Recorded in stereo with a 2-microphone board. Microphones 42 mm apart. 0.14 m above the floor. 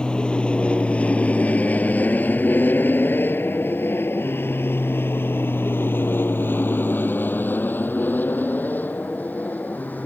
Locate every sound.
0.0 s an aircraft: 25° left (ahead or behind); by 10.1 s 40° left (ahead or behind)